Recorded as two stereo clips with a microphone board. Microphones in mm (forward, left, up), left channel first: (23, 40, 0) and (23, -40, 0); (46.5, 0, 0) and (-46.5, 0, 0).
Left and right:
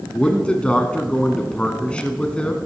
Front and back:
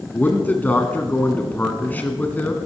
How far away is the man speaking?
About 1.2 m.